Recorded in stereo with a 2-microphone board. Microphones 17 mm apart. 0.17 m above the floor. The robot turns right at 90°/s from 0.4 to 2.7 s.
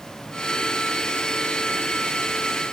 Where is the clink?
No clink in this recording.